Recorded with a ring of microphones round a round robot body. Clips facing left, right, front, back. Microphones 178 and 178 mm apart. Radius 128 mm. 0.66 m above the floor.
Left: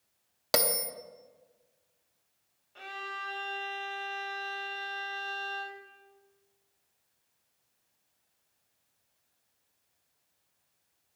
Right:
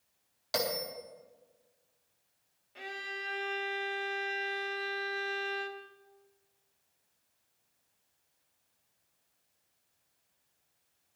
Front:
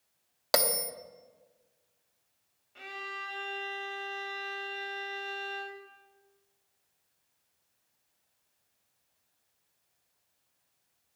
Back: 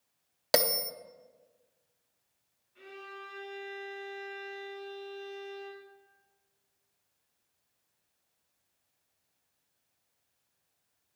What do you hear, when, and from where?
0.5 s a bell: 115° left, 0.9 m
2.8 s a violin: 15° right, 1.4 m